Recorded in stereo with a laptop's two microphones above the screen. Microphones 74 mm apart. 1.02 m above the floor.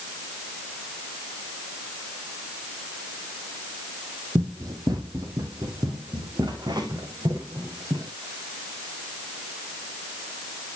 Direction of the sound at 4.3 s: 60° right (ahead or behind).